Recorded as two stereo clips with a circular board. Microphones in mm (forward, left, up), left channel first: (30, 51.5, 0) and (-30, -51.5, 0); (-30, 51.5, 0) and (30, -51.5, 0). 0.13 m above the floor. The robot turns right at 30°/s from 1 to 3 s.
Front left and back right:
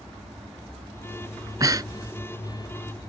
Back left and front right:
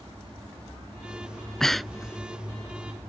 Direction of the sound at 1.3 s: 165° right.